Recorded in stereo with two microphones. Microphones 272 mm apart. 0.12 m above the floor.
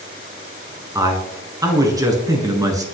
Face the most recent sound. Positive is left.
turn(degrees=-15)  # may be behind; listen again after turning